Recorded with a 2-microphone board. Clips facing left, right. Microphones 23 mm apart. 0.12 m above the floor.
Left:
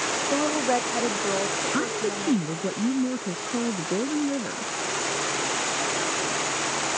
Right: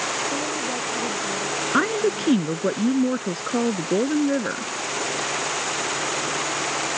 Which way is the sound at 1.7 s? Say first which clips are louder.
Right 5 dB; 35° right (ahead or behind).